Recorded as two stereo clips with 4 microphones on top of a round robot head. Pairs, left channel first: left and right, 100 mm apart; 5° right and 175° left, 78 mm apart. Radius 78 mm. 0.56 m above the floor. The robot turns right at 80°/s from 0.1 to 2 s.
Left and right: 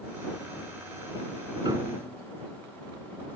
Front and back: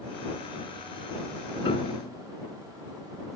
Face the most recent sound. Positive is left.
turn(degrees=-5)